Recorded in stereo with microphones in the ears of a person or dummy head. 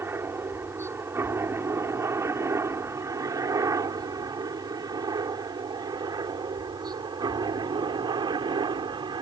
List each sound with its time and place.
0.0 s a helicopter: 10° right (ahead or behind); by 9.2 s 25° right (ahead or behind)